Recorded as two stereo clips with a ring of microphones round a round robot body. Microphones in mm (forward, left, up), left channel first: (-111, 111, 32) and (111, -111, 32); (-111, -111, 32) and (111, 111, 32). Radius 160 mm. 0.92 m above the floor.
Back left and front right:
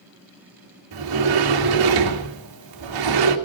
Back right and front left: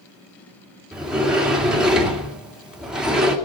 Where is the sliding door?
45° right, 2 m.